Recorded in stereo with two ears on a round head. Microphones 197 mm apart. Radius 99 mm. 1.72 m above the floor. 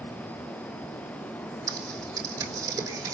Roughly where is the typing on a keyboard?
Centre.